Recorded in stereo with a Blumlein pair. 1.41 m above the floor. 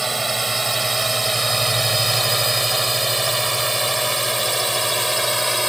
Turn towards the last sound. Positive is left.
turn(degrees=0)